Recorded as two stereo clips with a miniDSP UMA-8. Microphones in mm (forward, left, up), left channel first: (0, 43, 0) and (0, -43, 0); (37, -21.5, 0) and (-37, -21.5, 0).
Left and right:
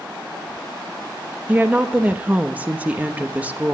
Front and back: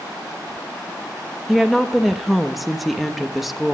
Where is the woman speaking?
95° right, 0.9 m.